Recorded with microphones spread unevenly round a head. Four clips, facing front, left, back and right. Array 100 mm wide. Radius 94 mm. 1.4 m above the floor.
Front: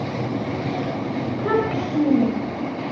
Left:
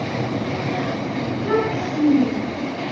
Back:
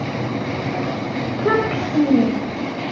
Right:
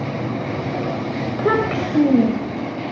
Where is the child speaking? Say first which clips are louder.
Right 3 dB, back 3 dB; 125° right, 5 m; by 2.7 s 130° right, 6 m.